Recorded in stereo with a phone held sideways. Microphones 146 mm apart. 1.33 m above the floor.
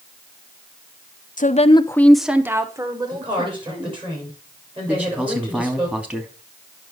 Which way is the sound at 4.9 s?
10° right (ahead or behind).